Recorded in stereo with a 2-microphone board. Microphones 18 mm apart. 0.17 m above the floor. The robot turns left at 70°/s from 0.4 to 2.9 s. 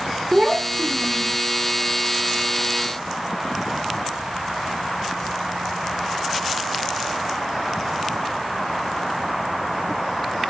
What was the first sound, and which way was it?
A child speaking, 65° right.